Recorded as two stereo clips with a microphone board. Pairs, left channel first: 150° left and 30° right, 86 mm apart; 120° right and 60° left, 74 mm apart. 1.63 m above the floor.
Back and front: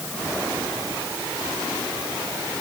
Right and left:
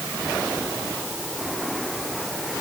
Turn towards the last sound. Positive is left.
No sound to turn to.